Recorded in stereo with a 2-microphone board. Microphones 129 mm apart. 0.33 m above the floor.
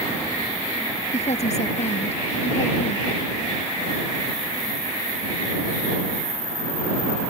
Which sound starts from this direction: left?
A woman speaking, at 1.1 s.